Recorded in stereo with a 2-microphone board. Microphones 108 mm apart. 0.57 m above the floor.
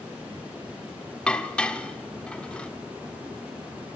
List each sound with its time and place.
1.3 s dishes clattering: 10° left (ahead or behind), 1.0 m